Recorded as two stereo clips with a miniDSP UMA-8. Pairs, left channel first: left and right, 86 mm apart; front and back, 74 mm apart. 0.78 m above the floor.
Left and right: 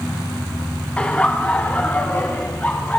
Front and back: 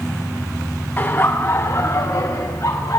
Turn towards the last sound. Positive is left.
turn(degrees=25)